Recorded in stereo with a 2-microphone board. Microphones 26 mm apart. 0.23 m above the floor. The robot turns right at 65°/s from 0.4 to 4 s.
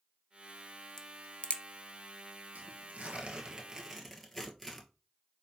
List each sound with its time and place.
1.0 s a crack: 20° left (ahead or behind), 0.6 m; by 1.6 s 55° left (ahead or behind), 0.6 m
2.5 s tearing paper: 85° right, 1.0 m; by 4.9 s 5° left, 1.0 m